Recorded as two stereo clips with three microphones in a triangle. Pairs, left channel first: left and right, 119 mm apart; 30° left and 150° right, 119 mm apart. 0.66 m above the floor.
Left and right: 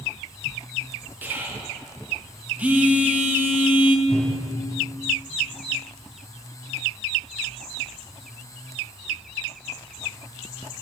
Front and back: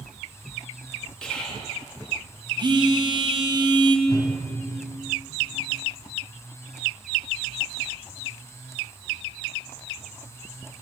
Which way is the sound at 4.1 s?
70° left.